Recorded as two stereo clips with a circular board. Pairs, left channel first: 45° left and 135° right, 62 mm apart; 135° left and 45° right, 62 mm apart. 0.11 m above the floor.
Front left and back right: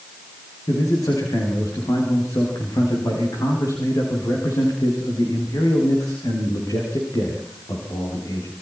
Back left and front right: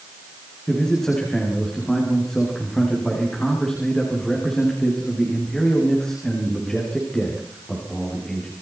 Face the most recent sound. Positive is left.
turn(degrees=55)